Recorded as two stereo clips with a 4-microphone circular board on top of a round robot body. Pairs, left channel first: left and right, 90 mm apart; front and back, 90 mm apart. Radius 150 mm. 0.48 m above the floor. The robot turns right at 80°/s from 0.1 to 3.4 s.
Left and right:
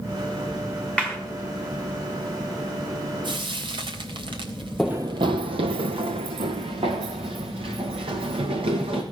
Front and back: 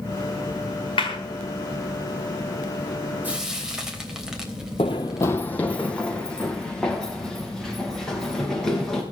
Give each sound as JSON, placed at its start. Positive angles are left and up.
{"t": 1.0, "sound": "a clap", "azimuth_deg": 10, "distance_m": 5.0}
{"t": 3.2, "sound": "frying", "azimuth_deg": -110, "distance_m": 3.5}
{"t": 4.8, "sound": "running footsteps", "azimuth_deg": 5, "distance_m": 0.5}